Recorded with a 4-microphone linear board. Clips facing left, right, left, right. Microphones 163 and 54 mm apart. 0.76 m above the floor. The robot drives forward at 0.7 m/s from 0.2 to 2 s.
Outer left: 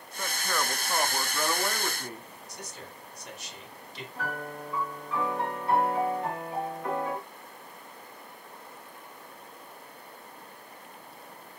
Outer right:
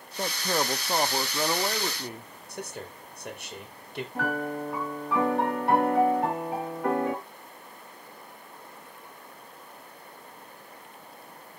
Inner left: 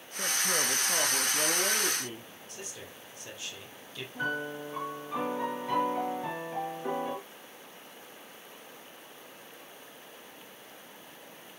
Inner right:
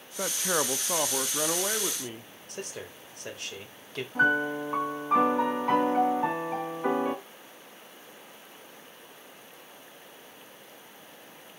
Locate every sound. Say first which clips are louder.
0.2 s a man speaking: outer right 4 dB, inner right 2 dB; 35° right (ahead or behind), 0.7 m; by 2.3 s 15° right (ahead or behind), 1.5 m
2.5 s a man speaking: outer right 8 dB, inner right 7 dB; 60° right (ahead or behind), 3.5 m
4.2 s a piano: outer right 7 dB, inner right 9 dB; 65° right (ahead or behind), 4.5 m